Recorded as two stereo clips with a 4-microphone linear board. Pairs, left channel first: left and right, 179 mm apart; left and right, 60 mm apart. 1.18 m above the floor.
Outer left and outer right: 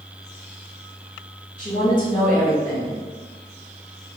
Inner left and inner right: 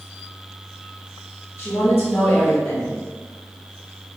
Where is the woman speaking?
45° left (ahead or behind), 1.5 m.